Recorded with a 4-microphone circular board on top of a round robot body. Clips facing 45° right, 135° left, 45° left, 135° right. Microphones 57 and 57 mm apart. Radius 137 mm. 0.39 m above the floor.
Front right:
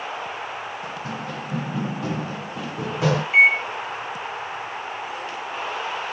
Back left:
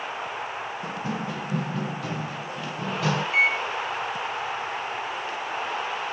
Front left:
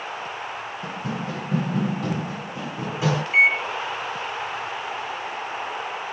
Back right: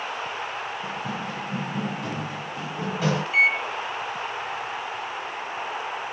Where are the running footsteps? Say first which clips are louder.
Back left 1 dB, front left 1 dB; 75° left, 1.1 m; by 3.2 s 35° right, 1.5 m.